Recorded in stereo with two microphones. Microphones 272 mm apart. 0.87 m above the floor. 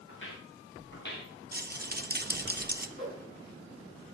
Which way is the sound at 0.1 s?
50° left (ahead or behind).